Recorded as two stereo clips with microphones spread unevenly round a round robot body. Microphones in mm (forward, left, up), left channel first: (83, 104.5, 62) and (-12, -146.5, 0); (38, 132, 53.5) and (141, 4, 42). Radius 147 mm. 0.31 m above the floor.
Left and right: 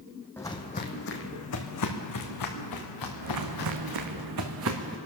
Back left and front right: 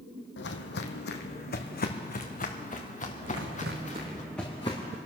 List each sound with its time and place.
0.4 s footsteps: 150° left, 1.1 m; by 4.2 s 80° left, 4 m
3.2 s footsteps: 80° right, 1.7 m; by 5.0 s 165° right, 2 m